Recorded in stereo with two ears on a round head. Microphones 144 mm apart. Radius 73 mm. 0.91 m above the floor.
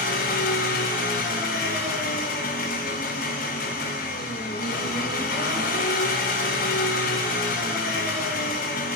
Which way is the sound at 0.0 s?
60° left (ahead or behind).